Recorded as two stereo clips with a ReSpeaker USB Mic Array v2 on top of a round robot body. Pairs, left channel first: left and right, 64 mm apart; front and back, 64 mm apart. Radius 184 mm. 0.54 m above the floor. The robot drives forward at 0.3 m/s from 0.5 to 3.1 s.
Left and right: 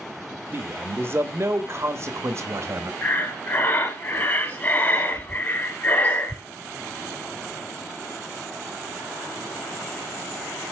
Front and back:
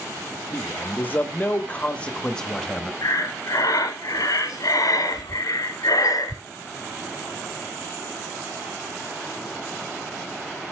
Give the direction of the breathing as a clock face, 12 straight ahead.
11 o'clock.